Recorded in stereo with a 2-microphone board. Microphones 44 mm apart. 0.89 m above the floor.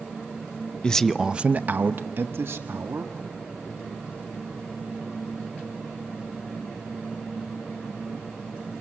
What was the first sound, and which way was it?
A man speaking, 20° left (ahead or behind).